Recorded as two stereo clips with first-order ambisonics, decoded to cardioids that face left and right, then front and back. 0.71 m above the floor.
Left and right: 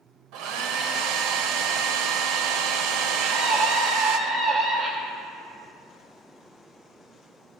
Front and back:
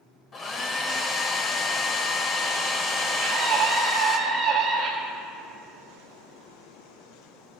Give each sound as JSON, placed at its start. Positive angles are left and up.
{"t": 0.3, "sound": "a hair dryer", "azimuth_deg": -70, "distance_m": 0.7}
{"t": 3.2, "sound": "a scream", "azimuth_deg": -130, "distance_m": 1.0}